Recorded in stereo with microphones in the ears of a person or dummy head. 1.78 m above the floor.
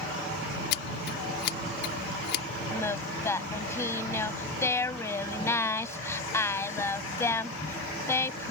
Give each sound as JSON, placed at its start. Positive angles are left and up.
{"t": 0.7, "sound": "scissors", "side_deg": 60}
{"t": 2.7, "sound": "singing", "side_deg": 15}